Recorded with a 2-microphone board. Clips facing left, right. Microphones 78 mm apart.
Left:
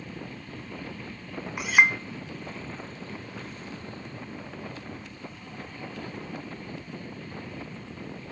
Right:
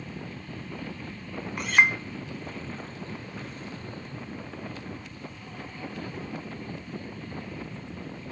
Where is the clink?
5° left (ahead or behind), 0.6 m.